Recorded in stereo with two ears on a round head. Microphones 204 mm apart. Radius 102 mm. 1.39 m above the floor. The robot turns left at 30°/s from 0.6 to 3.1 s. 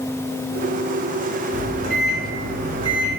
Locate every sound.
1.5 s a microwave: 60° right (ahead or behind), 1.3 m; by 3.2 s 20° right (ahead or behind), 1.3 m